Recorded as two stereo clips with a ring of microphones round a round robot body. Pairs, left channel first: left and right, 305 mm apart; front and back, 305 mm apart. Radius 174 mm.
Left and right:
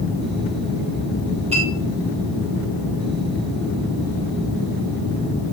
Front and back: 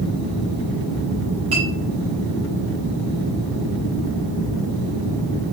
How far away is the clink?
About 4 m.